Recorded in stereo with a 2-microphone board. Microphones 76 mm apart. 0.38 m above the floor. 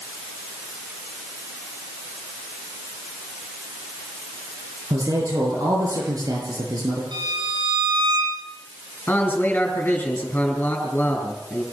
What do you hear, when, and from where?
4.9 s a man speaking: 55° right (ahead or behind), 6.5 m
7.1 s a violin: 75° right (ahead or behind), 6 m
9.1 s a man speaking: 25° left (ahead or behind), 5.5 m